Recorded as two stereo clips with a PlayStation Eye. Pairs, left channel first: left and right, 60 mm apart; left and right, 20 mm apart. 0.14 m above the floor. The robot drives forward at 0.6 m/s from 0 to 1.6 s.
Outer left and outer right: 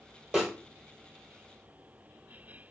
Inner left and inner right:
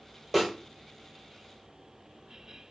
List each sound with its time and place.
0.3 s a snare drum: 10° right (ahead or behind), 1.4 m